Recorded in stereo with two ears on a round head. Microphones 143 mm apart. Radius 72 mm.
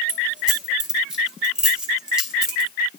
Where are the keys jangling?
5° right (ahead or behind), 0.8 m.